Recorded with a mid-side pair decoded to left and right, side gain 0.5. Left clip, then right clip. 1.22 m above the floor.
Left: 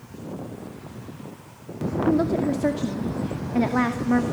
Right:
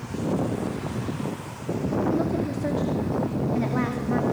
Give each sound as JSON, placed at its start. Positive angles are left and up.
{"t": 2.1, "sound": "a woman speaking", "azimuth_deg": 40, "distance_m": 2.0}